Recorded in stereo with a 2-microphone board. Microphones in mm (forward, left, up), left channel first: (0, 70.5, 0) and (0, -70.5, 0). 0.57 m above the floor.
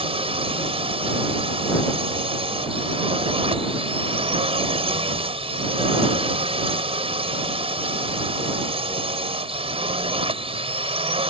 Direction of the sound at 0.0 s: 45° right (ahead or behind).